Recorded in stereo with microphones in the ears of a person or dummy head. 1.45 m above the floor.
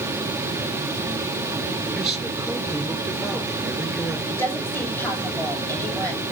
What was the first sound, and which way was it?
A man speaking, centre (ahead or behind).